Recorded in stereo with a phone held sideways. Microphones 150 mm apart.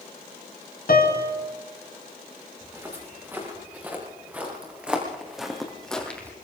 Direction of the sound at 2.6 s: 15° right (ahead or behind).